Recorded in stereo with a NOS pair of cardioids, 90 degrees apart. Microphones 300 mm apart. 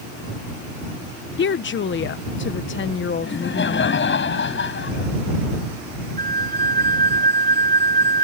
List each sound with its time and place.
1.4 s a woman speaking: 40° left
3.2 s laughter: 40° left
6.2 s a flute: 30° right